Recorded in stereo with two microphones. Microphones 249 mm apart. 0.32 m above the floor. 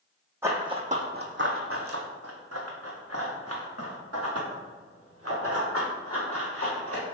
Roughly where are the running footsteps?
Centre.